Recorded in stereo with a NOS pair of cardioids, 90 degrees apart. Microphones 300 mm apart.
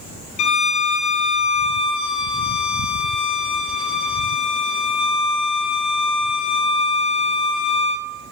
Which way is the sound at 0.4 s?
70° left.